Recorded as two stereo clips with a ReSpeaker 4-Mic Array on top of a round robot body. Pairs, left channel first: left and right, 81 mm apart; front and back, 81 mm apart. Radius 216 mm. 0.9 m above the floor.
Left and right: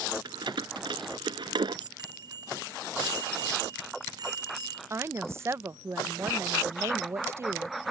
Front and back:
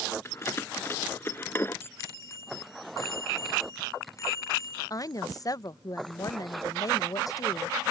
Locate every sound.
0.2 s keys jangling: 60° right; by 1.9 s 65° right
2.0 s a bicycle bell: 55° right
4.9 s a woman speaking: 40° right